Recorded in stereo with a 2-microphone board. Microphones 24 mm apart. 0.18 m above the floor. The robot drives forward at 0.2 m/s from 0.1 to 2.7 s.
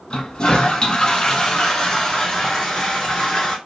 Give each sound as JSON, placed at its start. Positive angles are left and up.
{"t": 0.1, "sound": "a toilet flushing", "side_deg": 40, "distance_m": 0.5}